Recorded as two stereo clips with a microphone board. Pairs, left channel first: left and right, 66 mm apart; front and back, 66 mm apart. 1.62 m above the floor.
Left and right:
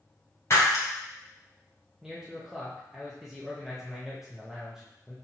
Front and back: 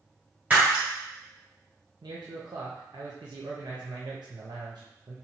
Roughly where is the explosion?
No explosion in this recording.